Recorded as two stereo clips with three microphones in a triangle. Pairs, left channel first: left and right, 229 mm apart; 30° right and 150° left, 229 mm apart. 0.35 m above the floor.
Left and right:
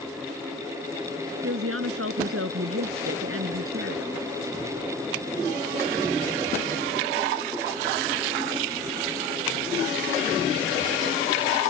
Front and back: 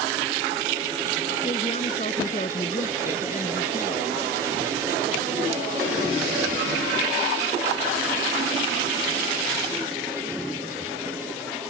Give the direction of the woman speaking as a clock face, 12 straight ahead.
3 o'clock.